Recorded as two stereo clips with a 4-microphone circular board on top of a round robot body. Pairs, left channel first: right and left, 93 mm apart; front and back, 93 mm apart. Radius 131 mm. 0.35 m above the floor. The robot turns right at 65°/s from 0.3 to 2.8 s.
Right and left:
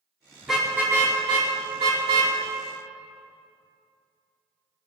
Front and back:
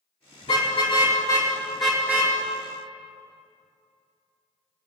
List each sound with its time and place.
0.4 s a car horn: straight ahead, 4.5 m; by 2.4 s 125° left, 4.5 m